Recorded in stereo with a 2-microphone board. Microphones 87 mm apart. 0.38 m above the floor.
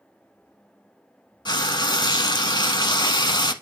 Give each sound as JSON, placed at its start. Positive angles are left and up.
{"t": 1.4, "sound": "frying", "side_deg": 65, "distance_m": 0.8}